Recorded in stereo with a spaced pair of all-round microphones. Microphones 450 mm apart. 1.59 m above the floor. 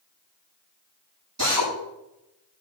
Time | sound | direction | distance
1.4 | a drill | 40° right (ahead or behind) | 8 m